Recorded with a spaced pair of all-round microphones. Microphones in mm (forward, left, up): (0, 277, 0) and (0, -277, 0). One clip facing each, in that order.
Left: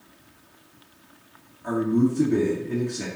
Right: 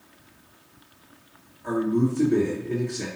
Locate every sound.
1.6 s a man speaking: 30° left (ahead or behind), 1.9 m